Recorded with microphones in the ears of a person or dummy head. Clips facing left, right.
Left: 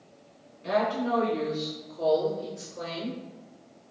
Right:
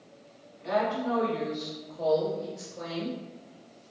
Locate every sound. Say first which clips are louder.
0.6 s a woman speaking: left 1 dB; 25° left (ahead or behind), 0.8 m; by 3.2 s 35° left (ahead or behind), 2 m